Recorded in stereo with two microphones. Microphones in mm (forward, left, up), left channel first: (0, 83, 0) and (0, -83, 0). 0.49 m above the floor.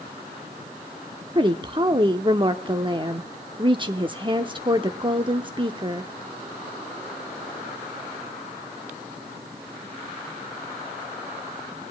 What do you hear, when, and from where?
1.4 s a woman speaking: 30° right (ahead or behind), 0.7 m